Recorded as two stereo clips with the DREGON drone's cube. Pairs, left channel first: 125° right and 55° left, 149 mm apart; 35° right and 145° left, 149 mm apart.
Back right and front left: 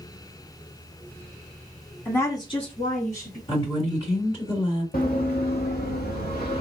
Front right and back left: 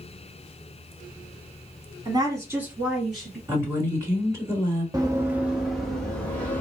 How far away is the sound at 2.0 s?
About 1.1 m.